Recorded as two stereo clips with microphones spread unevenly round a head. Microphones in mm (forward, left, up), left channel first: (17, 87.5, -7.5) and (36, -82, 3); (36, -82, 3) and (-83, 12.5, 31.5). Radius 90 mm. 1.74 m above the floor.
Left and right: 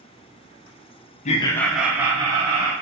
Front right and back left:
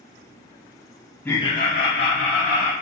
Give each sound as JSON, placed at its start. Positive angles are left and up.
{"t": 1.2, "sound": "laughter", "azimuth_deg": 45, "distance_m": 0.6}